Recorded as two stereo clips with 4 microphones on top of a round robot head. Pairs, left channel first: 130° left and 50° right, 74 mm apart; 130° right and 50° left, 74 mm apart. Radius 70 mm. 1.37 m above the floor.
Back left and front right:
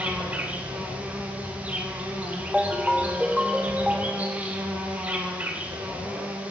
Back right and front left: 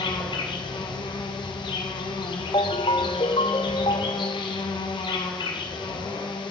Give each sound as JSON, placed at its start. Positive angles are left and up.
{"t": 0.0, "sound": "an insect", "azimuth_deg": -120, "distance_m": 3.0}
{"t": 2.5, "sound": "a ringtone", "azimuth_deg": -130, "distance_m": 0.6}